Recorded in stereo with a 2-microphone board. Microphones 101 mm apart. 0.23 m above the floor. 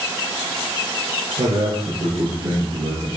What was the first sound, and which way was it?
A man speaking, 70° right (ahead or behind).